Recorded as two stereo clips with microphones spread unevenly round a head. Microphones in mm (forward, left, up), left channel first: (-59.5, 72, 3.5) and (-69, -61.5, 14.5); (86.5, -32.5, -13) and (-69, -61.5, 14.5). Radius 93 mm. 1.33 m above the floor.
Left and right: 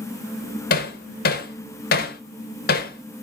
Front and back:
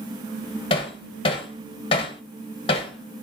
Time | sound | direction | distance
0.7 | hammering | 75° left | 1.0 m